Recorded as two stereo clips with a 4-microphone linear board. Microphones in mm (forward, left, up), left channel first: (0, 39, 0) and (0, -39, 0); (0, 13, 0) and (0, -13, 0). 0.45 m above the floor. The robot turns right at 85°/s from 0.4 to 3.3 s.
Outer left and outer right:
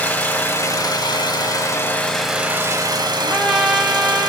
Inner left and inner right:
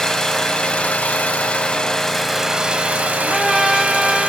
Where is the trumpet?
Centre (ahead or behind), 1.3 m; by 4.3 s 5° right (ahead or behind), 1.3 m.